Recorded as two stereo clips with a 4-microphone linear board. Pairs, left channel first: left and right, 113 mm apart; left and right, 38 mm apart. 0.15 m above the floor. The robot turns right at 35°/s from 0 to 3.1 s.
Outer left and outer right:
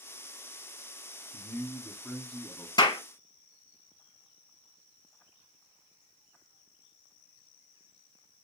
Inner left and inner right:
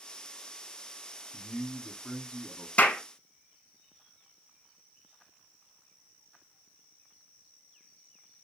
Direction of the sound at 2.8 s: 35° left (ahead or behind).